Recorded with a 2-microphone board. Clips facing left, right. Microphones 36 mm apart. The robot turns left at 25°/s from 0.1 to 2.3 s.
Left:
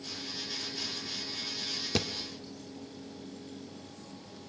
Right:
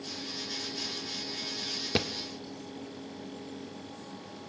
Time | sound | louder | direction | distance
1.9 | a thud | right 2 dB | 20° right (ahead or behind) | 1.2 m